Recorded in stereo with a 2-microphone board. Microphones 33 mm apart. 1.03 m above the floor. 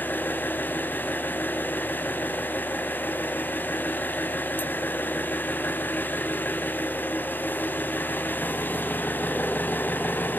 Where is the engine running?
75° left (ahead or behind), 5 m.